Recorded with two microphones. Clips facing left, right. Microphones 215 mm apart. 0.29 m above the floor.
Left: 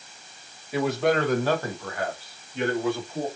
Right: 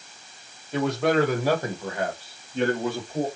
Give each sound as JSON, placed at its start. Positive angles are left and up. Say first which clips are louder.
{"t": 0.7, "sound": "a man speaking", "louder": "right 1 dB", "side_deg": 5, "distance_m": 1.2}